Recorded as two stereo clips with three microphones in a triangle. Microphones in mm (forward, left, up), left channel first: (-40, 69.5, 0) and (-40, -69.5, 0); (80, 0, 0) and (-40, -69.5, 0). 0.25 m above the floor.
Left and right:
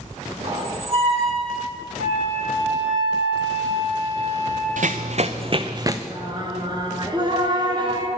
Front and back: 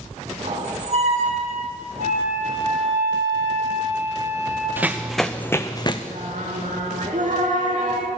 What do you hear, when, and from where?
0.4 s a squeak: 125° right, 1.9 m
2.0 s a flute: 125° right, 4 m
4.8 s running footsteps: 75° right, 1.0 m; by 6.0 s 25° right, 0.9 m
6.1 s singing: 145° right, 2 m